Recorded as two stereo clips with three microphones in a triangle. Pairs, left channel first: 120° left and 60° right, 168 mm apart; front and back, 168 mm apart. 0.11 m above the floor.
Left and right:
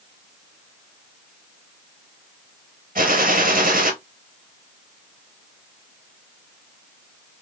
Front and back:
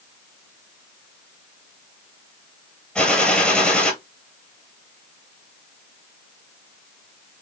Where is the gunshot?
85° right, 1.0 m.